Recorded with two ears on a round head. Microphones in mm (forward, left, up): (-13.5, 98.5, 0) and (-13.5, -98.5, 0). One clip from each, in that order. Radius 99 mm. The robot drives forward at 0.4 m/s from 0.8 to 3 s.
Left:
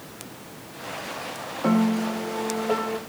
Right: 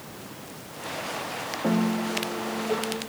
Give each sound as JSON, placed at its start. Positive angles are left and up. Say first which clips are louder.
{"t": 1.6, "sound": "a piano", "louder": "left 4 dB", "side_deg": 75, "distance_m": 1.3}